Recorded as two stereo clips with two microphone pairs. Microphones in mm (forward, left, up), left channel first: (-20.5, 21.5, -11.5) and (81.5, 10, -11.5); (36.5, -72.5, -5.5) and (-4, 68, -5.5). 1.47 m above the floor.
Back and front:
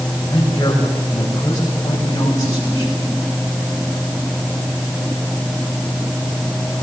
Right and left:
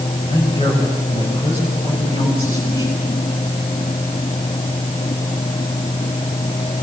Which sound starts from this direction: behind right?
A woman speaking, at 0.3 s.